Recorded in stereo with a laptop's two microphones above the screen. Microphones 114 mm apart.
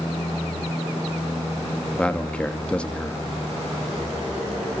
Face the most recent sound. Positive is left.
turn(degrees=10)  # may be behind; listen again after turning